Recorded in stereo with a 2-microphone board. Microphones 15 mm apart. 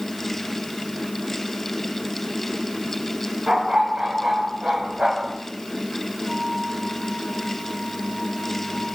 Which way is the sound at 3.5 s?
70° right (ahead or behind).